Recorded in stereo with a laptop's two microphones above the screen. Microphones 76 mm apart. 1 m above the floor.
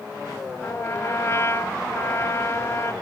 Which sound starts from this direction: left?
A trumpet, at 0.6 s.